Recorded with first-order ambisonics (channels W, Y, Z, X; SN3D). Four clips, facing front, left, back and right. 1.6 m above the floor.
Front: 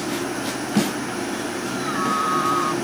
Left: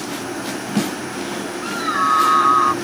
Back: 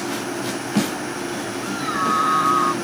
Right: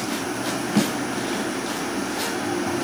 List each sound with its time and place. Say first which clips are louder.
1.6 s a scream: left 8 dB, back 3 dB; 100° left; by 2.7 s 105° left